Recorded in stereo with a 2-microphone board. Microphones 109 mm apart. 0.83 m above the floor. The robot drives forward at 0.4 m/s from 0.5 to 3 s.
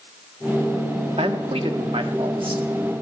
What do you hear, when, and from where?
1.2 s a man speaking: 70° right (ahead or behind), 1.3 m; by 2.6 s 55° right (ahead or behind), 1.5 m